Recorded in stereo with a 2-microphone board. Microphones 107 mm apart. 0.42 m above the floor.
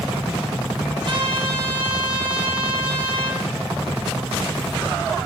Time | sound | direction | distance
1.1 | a trumpet | 50° right (ahead or behind) | 4 m